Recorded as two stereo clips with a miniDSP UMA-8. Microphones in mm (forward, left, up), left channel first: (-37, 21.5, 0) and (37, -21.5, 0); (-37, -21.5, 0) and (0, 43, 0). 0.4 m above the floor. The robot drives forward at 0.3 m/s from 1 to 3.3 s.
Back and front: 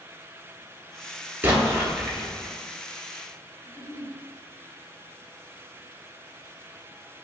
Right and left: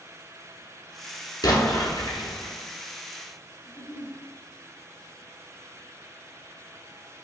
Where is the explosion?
100° right, 1.0 m; by 2.5 s 115° right, 1.1 m.